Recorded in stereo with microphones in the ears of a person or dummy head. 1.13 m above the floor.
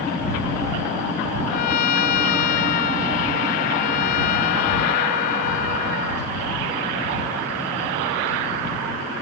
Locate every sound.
1.5 s a trumpet: 55° left (ahead or behind)